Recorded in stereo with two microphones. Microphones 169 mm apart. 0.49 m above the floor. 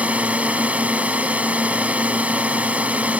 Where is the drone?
10° right (ahead or behind).